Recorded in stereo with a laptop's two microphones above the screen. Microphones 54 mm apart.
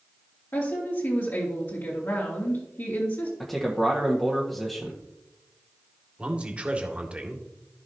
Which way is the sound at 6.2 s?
20° right (ahead or behind).